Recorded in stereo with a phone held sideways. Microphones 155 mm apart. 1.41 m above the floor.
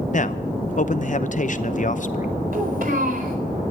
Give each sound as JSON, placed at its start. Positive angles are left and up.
{"t": 0.1, "sound": "a man speaking", "side_deg": 55, "distance_m": 0.8}
{"t": 2.5, "sound": "a child speaking", "side_deg": -65, "distance_m": 4.5}